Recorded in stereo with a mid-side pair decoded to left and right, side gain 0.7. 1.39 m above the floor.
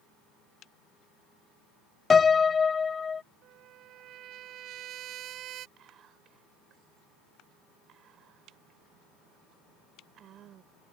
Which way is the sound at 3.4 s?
50° right.